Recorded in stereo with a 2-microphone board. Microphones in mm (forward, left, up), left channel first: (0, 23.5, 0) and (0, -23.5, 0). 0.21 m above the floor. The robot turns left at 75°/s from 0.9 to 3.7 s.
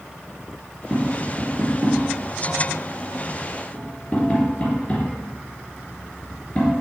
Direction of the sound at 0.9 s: Centre (ahead or behind).